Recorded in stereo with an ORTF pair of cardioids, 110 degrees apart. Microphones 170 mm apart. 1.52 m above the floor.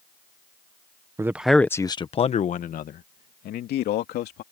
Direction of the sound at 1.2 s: 15° right.